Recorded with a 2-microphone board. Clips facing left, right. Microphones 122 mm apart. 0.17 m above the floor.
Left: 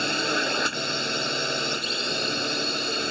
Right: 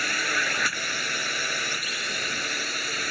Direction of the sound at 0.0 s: 25° left (ahead or behind).